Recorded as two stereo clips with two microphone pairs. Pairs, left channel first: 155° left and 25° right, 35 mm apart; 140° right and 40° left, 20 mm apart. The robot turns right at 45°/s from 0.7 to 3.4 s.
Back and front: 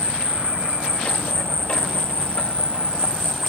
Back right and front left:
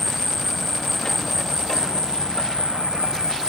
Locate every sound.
0.0 s an insect: 65° right; by 3.5 s 60° left